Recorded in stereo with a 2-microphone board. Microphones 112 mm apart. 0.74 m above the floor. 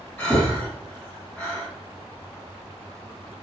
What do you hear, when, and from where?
0.2 s breathing: 10° left (ahead or behind), 1.2 m